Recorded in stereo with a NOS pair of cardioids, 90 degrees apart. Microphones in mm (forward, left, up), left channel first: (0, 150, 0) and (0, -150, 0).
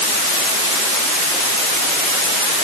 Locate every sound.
Only background noise.